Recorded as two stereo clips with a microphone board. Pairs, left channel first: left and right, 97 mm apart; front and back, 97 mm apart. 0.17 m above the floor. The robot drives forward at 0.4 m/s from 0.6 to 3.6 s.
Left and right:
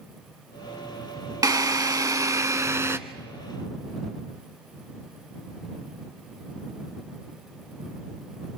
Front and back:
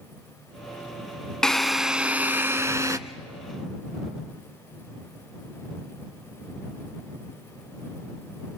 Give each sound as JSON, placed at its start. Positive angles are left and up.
{"t": 1.4, "sound": "a drill", "azimuth_deg": -80, "distance_m": 0.7}